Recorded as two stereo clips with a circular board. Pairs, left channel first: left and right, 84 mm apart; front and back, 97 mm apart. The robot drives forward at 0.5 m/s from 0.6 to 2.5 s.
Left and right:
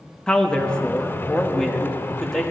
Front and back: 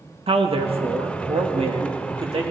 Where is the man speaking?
170° left, 1.2 m; by 2.5 s 175° left, 2 m.